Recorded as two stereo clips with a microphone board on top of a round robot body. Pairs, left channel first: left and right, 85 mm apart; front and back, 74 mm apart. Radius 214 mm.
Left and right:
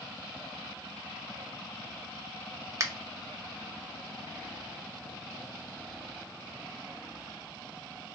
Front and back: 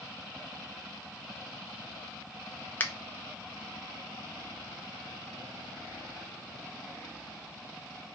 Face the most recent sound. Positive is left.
turn(degrees=-55)